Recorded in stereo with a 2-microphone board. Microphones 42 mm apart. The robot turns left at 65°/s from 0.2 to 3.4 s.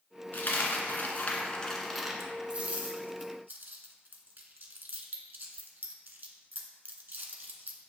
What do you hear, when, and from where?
0.3 s a dropped coin: 55° left (ahead or behind), 0.5 m; by 7.8 s 60° right (ahead or behind), 0.5 m